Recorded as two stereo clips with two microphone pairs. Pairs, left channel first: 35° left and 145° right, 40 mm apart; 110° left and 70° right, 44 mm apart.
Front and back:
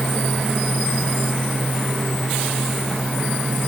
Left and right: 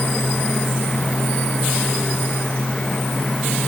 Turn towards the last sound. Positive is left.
No sound to turn to.